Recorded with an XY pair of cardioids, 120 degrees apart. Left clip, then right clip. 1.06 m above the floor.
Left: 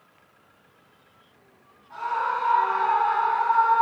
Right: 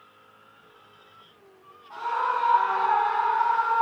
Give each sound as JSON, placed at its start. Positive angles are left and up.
{"t": 1.9, "sound": "a scream", "azimuth_deg": -30, "distance_m": 1.6}